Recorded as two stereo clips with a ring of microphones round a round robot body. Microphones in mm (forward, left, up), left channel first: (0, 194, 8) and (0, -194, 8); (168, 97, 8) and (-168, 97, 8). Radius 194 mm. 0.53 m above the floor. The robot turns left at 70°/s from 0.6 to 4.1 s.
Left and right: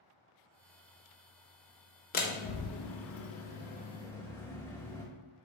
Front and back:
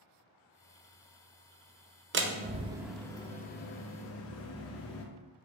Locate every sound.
2.1 s a door slam: 145° left, 0.5 m; by 5.0 s 10° left, 0.5 m